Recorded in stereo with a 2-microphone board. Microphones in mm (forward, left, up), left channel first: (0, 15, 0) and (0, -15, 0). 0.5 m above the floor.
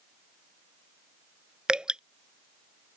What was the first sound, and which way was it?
Dripping, 25° right (ahead or behind).